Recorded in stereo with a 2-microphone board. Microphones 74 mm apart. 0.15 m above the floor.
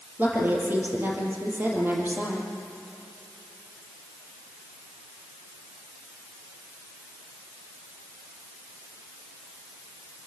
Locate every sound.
0.2 s a woman speaking: 30° right (ahead or behind), 5 m